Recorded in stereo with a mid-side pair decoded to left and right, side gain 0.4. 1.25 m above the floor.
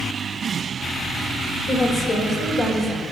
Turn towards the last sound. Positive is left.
turn(degrees=60)